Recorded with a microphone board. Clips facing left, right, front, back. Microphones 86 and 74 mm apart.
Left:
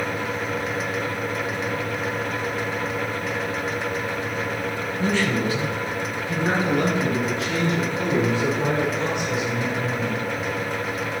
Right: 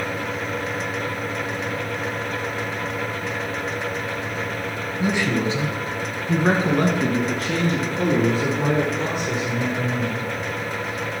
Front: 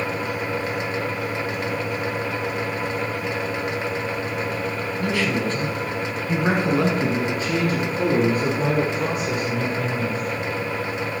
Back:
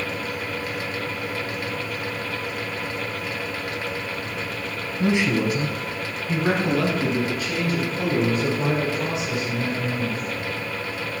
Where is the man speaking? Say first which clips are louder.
Right 1 dB, back 3 dB; 155° right, 1.1 m; by 10.3 s 45° right, 4 m.